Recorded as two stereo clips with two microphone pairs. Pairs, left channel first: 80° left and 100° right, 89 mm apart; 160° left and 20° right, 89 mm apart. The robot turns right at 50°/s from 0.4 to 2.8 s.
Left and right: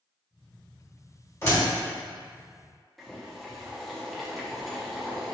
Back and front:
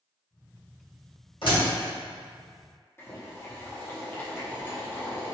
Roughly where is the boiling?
Behind.